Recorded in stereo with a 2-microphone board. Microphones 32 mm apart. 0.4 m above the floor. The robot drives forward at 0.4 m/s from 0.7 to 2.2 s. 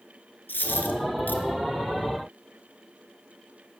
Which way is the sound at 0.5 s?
85° left.